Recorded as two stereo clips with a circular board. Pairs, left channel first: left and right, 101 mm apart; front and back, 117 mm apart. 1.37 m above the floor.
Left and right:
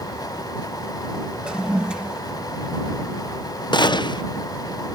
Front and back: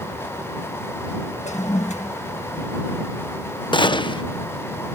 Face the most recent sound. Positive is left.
turn(degrees=45)